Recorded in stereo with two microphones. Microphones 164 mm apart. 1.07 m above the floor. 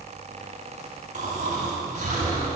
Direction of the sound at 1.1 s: 50° right (ahead or behind).